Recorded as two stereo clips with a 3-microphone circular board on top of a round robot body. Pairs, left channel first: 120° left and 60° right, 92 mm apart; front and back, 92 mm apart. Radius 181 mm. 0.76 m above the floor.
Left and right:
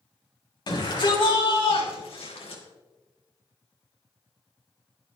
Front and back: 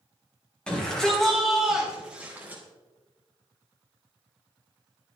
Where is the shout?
80° left, 5 m; by 2.6 s 110° left, 4 m.